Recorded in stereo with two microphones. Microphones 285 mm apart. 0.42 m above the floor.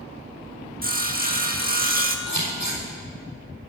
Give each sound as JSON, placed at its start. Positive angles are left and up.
{"t": 0.8, "sound": "sawing", "side_deg": -30, "distance_m": 0.8}
{"t": 2.3, "sound": "scissors", "side_deg": 90, "distance_m": 4.5}